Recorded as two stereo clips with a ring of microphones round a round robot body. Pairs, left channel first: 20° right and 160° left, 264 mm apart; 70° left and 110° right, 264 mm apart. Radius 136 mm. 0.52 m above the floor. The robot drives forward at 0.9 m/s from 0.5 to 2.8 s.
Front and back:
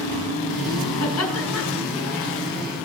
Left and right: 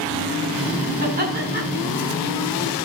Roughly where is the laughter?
Ahead right.